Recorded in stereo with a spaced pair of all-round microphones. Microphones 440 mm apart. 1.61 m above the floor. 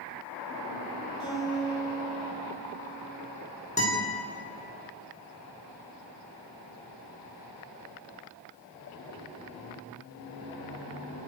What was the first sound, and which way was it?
A guitar, centre (ahead or behind).